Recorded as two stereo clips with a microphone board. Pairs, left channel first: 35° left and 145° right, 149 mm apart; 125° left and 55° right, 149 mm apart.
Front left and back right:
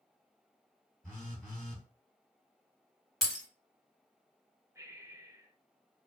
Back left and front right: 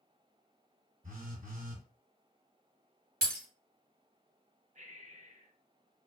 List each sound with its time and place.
1.0 s a phone buzzing: 50° right, 1.5 m
3.2 s breaking glass: 55° right, 1.4 m
4.8 s breathing: 80° right, 0.6 m